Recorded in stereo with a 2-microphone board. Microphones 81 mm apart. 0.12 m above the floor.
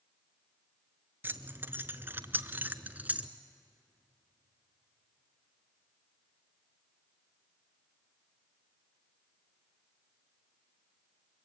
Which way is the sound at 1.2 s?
30° right (ahead or behind).